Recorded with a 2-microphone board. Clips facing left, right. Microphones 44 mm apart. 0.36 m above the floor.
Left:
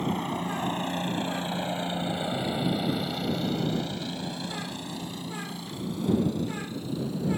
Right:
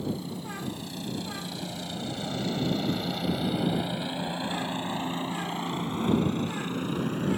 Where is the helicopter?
55° left (ahead or behind); by 7.4 s 50° right (ahead or behind).